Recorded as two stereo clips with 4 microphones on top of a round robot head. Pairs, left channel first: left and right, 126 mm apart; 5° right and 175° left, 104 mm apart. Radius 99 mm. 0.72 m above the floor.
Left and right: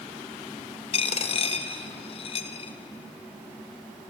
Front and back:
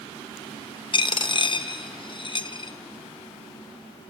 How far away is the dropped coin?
About 1.0 m.